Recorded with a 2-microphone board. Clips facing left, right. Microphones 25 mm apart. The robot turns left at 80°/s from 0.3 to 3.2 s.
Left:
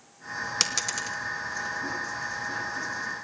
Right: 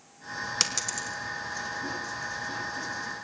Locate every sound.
0.6 s a dropped coin: 5° left (ahead or behind), 2 m; by 1.2 s 50° left (ahead or behind), 2 m